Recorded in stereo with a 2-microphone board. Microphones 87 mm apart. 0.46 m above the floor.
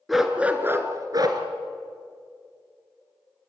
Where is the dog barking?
Centre (ahead or behind), 2 m; by 1.4 s 55° right (ahead or behind), 2.5 m.